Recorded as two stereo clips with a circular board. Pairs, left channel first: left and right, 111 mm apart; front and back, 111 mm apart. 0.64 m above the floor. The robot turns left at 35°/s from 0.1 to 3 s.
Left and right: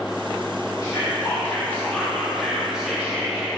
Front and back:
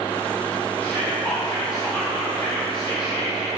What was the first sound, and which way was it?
Whispering, 60° left.